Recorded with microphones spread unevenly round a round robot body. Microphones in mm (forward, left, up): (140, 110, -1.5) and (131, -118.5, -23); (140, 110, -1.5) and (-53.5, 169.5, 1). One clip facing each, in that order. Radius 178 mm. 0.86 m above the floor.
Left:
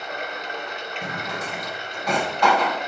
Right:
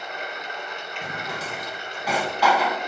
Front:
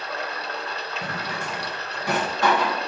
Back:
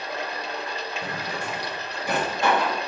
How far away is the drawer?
About 2.0 m.